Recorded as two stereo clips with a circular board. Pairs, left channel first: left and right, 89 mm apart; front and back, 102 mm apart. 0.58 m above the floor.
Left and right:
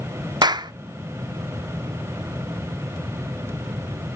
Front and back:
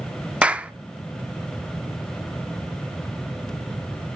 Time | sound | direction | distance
0.4 | a clap | 105° right | 0.5 m